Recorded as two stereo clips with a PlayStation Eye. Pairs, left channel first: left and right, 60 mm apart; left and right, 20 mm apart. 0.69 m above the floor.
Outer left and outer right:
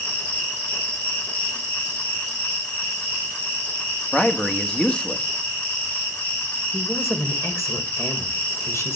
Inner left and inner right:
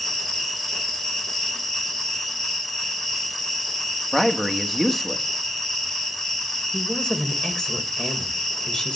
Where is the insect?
25° left (ahead or behind), 7 m.